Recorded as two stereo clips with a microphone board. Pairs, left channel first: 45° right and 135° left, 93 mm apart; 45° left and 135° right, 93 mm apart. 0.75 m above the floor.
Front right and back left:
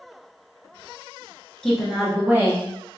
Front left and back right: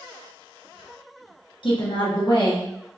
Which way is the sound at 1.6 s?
35° left.